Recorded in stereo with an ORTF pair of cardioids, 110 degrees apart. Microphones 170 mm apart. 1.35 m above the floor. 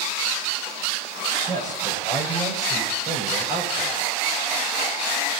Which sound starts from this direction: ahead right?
A man speaking, at 1.5 s.